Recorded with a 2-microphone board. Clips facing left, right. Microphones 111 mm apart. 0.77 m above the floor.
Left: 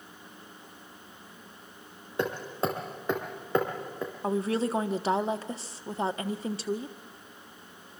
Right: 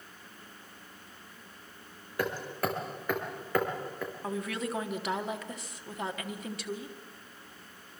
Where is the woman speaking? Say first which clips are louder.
Left 8 dB; 30° left (ahead or behind), 1.1 m.